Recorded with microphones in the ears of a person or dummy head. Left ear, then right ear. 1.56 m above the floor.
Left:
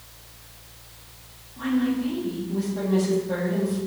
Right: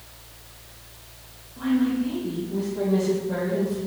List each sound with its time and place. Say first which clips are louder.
1.6 s a woman speaking: right 1 dB; 15° left (ahead or behind), 1.5 m